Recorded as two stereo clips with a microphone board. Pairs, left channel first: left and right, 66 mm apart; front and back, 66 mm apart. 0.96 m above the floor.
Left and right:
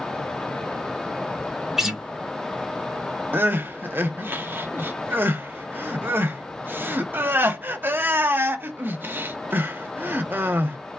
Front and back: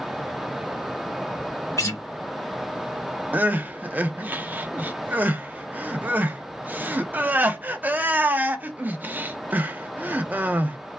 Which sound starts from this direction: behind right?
Crying, at 3.3 s.